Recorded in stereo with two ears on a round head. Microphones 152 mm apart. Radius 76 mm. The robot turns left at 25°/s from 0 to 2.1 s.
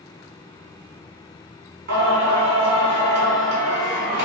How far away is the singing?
About 1.4 m.